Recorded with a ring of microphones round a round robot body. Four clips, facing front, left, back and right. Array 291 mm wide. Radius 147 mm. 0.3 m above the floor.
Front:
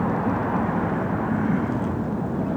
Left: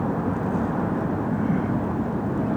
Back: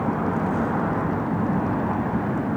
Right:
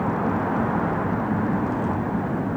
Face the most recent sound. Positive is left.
No sound to turn to.